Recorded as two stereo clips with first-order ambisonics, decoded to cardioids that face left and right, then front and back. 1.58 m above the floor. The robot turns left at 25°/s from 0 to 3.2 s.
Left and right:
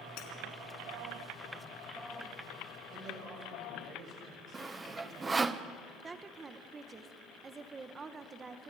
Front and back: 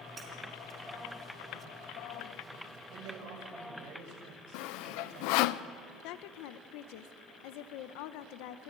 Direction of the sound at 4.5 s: 15° right.